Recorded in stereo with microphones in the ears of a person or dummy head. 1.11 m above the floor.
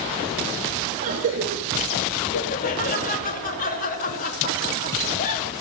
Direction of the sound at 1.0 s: 40° right (ahead or behind).